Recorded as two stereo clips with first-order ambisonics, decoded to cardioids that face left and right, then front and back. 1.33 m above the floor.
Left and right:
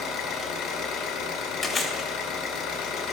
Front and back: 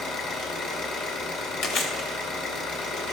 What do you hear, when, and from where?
0.0 s an engine running: 40° left, 2 m
1.6 s chewing: 15° left, 1.3 m